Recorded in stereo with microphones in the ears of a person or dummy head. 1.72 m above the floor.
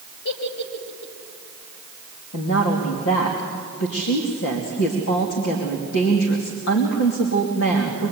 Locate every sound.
0.2 s a giggle: 60° left (ahead or behind), 3 m
2.3 s a woman speaking: 70° left (ahead or behind), 2.5 m